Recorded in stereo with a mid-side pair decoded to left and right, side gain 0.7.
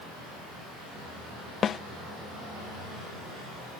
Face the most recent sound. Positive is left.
turn(degrees=35)